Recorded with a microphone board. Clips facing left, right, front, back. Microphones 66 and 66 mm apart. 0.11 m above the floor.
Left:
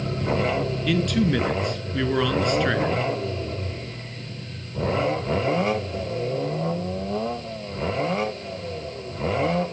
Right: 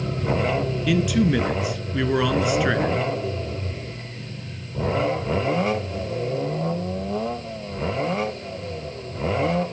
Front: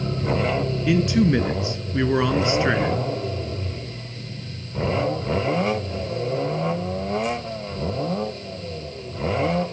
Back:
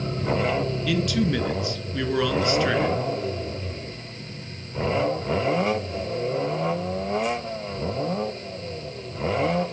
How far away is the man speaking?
About 1.2 m.